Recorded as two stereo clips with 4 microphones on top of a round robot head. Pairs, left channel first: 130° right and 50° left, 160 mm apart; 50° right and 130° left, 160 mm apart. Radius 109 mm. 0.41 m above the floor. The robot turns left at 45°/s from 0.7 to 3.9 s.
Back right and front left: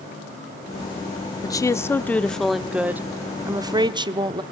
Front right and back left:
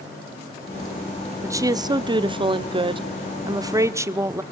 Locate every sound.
1.4 s a woman speaking: 175° right, 0.8 m; by 4.4 s 75° left, 0.8 m